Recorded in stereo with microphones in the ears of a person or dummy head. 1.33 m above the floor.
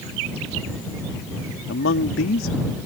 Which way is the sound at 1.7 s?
70° left (ahead or behind).